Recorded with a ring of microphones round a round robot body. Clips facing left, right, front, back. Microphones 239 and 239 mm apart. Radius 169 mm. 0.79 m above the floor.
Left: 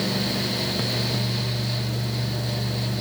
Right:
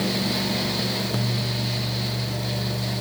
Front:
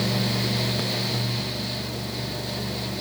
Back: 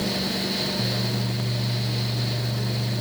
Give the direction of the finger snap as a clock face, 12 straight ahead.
I don't hear a finger snap.